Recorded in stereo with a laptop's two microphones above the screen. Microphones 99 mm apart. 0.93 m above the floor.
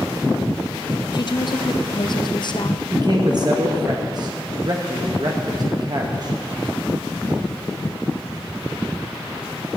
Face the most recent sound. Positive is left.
turn(degrees=-45)  # may be behind; listen again after turning